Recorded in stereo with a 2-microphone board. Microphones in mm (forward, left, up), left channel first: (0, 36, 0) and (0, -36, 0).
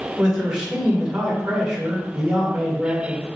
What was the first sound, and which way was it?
A man speaking, 15° right (ahead or behind).